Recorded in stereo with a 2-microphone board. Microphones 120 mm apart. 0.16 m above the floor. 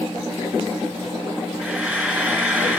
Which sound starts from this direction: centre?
Frying, at 1.6 s.